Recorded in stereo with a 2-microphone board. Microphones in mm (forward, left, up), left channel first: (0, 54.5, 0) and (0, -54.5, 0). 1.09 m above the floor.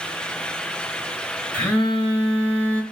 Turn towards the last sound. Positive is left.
turn(degrees=10)  # may be behind; listen again after turning